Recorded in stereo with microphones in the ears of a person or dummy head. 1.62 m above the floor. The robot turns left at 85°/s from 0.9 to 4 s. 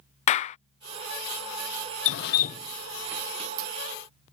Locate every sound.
0.3 s a clap: 35° left (ahead or behind)
2.0 s dripping: 80° left; by 3.7 s 55° right (ahead or behind)